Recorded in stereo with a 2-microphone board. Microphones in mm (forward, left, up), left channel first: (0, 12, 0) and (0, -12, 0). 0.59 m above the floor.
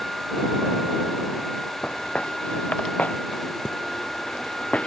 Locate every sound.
1.8 s footsteps: 70° left (ahead or behind); by 4.9 s 55° left (ahead or behind)